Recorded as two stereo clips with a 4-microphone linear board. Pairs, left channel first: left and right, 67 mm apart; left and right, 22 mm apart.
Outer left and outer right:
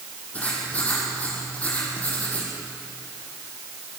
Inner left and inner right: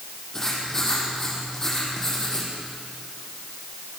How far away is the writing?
About 6.5 m.